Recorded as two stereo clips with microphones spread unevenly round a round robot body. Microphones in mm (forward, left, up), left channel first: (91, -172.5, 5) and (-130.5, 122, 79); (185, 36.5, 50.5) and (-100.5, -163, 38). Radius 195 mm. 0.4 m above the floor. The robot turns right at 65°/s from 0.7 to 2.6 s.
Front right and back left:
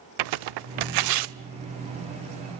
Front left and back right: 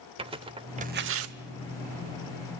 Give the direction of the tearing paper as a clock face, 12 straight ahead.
7 o'clock.